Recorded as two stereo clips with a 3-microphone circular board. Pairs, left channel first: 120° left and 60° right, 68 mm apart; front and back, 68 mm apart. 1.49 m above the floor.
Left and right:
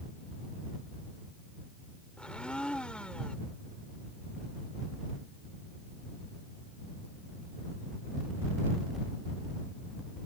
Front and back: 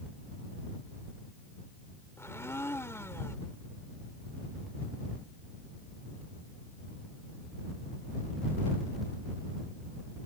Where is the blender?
45° left.